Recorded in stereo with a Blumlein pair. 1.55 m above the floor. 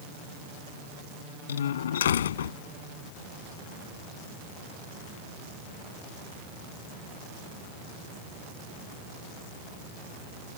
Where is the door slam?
60° left.